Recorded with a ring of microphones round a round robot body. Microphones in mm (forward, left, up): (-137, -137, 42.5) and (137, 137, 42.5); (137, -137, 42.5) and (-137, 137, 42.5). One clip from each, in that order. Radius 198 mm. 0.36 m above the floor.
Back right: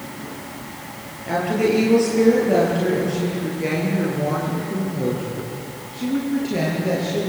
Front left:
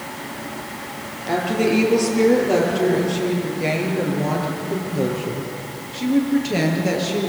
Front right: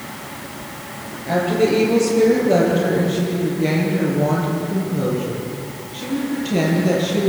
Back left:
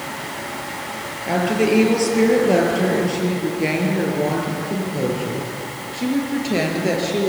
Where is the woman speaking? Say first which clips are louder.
Even, front right 1 dB; 125° left, 8.5 m; by 7.3 s 105° left, 7.5 m.